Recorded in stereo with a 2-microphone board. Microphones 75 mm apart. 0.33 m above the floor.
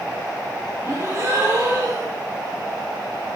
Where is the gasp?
35° right (ahead or behind), 3 m.